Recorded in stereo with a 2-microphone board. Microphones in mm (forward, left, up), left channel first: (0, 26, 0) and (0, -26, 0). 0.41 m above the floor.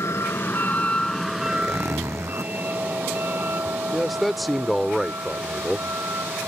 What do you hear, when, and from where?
0.0 s a vehicle: 65° left (ahead or behind); by 6.5 s 55° right (ahead or behind)
1.4 s a zipper: 75° right (ahead or behind)
3.9 s a man speaking: centre (ahead or behind)